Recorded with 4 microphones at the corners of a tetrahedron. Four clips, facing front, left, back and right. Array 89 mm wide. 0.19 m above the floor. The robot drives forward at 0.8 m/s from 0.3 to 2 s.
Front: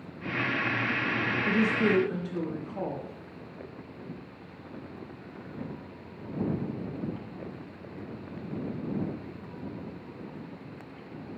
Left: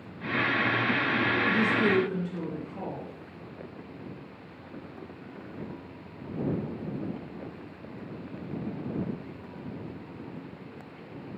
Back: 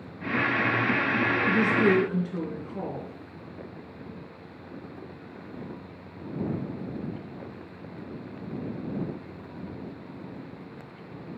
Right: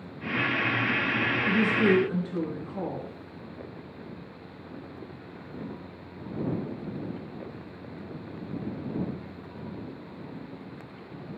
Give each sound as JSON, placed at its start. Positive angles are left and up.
{"t": 1.4, "sound": "a woman speaking", "azimuth_deg": -155, "distance_m": 2.5}